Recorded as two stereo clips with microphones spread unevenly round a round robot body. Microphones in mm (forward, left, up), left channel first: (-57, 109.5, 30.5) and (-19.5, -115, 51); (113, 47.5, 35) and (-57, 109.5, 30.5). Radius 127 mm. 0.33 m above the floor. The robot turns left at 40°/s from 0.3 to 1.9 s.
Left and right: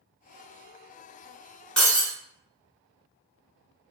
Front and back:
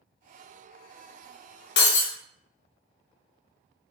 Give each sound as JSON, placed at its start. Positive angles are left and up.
{"t": 1.8, "sound": "breaking glass", "azimuth_deg": 10, "distance_m": 0.6}